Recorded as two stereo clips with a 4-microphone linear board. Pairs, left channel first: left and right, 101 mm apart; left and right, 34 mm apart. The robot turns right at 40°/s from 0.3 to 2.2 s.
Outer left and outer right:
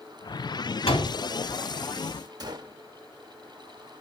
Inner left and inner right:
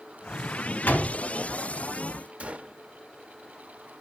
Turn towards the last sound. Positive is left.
turn(degrees=-45)  # may be behind; listen again after turning